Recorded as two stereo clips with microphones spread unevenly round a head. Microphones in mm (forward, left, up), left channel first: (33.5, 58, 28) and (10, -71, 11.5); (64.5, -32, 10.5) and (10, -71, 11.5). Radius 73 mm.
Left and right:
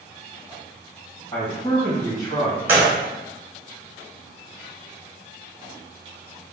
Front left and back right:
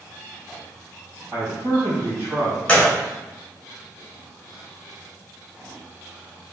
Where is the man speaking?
140° left, 1.5 m.